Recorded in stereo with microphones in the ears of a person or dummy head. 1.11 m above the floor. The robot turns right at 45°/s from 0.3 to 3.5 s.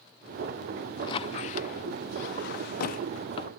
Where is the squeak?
25° left (ahead or behind); by 3.5 s 30° left (ahead or behind).